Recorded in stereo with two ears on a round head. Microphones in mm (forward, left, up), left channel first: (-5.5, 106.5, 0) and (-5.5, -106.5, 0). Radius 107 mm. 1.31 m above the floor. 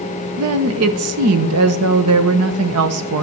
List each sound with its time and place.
0.4 s a woman speaking: 70° right (ahead or behind), 1.1 m